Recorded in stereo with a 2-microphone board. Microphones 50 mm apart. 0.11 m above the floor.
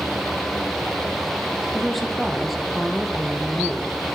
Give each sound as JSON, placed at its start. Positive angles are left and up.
{"t": 1.7, "sound": "a woman speaking", "side_deg": 5, "distance_m": 4.0}